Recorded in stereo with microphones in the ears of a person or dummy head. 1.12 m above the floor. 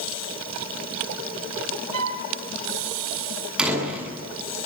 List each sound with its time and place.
1.9 s a flute: 80° right, 3 m
3.6 s a door slam: centre (ahead or behind), 8 m